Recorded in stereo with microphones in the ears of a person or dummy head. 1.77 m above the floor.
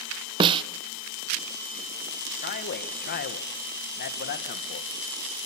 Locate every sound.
0.4 s a snare drum: 30° right (ahead or behind), 0.7 m
2.4 s a man speaking: 50° left (ahead or behind), 2 m